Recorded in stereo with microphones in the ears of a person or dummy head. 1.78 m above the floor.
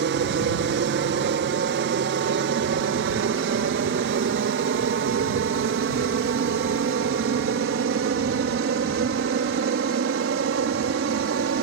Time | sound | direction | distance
0.0 | an aircraft | 60° right (ahead or behind) | ?